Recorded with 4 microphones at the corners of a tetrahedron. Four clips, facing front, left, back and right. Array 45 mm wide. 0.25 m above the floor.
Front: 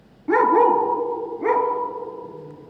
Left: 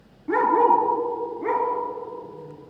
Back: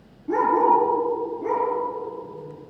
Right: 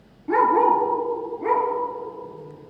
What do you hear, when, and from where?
0.3 s a dog barking: 5° left, 1.5 m